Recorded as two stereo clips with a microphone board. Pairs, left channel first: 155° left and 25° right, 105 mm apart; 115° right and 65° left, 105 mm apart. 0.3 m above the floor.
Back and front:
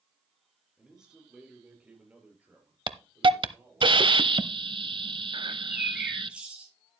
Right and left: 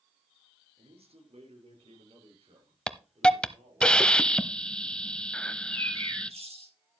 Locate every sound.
0.8 s a man speaking: 65° left, 4.5 m; by 3.9 s 45° left, 7 m
2.9 s a hiss: 35° right, 0.7 m
5.5 s a bird: 60° left, 5 m